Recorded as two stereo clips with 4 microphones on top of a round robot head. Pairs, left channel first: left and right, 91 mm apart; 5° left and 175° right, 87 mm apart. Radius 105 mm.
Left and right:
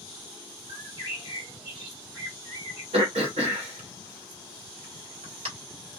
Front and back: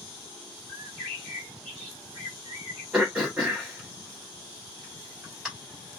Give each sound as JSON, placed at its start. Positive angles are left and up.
{"t": 0.7, "sound": "a bird", "azimuth_deg": -65, "distance_m": 1.7}
{"t": 2.9, "sound": "throat clearing", "azimuth_deg": -90, "distance_m": 0.5}